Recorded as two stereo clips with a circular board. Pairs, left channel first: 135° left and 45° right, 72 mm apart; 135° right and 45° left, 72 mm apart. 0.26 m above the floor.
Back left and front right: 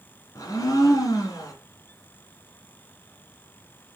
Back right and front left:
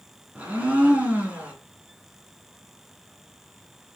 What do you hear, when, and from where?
0.3 s a blender: 110° left, 2 m